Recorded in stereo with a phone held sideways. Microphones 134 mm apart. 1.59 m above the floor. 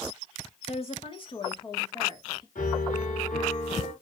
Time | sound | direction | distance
0.7 | a woman speaking | 50° left (ahead or behind) | 1.5 m
2.5 | a piano | 80° left | 3.5 m